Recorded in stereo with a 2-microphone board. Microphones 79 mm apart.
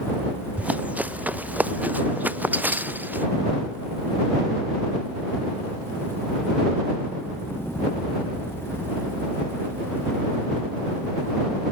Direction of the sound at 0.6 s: 20° right (ahead or behind).